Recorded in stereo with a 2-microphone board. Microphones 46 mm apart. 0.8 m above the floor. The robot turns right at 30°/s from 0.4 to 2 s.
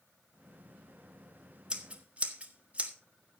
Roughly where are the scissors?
Centre.